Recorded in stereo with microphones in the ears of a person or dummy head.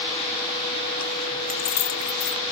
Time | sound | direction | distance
1.5 | keys jangling | 45° left (ahead or behind) | 0.9 m